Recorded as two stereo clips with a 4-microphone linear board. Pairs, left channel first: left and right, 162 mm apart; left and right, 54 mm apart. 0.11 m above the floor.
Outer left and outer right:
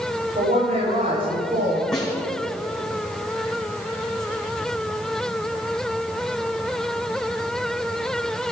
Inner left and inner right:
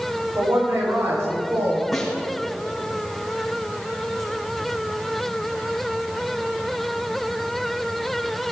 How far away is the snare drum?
About 5.5 m.